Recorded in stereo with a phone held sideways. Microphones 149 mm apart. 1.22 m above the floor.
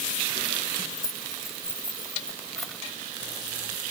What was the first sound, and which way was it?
Keys jangling, 30° left (ahead or behind).